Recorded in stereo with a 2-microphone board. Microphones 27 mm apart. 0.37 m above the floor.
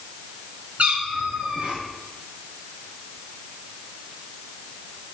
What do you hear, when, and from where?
0.8 s a cat meowing: 55° right (ahead or behind), 2 m; by 1.8 s 50° right (ahead or behind), 1.0 m